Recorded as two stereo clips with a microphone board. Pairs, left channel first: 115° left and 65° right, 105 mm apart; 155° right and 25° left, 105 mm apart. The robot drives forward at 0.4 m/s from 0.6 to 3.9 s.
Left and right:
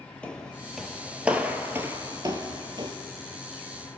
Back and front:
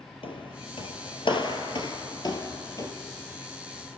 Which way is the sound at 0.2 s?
170° right.